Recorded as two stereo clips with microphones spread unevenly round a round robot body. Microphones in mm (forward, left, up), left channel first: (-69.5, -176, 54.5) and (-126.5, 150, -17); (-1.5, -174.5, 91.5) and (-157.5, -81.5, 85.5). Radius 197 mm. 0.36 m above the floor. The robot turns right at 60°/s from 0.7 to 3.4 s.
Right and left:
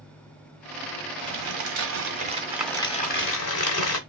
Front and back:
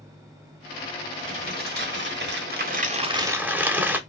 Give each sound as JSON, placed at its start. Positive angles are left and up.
{"t": 1.2, "sound": "crumpling", "azimuth_deg": 95, "distance_m": 1.3}